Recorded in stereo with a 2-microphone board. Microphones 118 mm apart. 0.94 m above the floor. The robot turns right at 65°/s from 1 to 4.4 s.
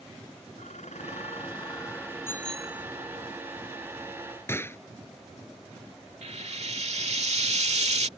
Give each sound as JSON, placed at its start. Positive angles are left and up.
{"t": 0.6, "sound": "dishes clattering", "azimuth_deg": 95}
{"t": 2.3, "sound": "a bicycle bell", "azimuth_deg": 160}
{"t": 4.5, "sound": "a gunshot", "side_deg": 20}
{"t": 6.2, "sound": "frying", "side_deg": -70}